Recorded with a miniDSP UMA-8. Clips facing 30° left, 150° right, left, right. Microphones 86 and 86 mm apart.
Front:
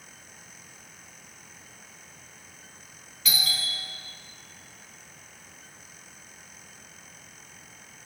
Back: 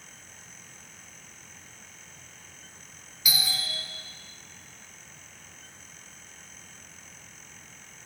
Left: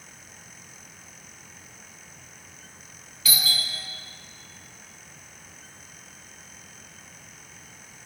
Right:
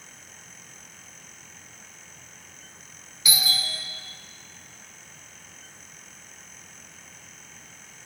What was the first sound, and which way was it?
A doorbell, 105° right.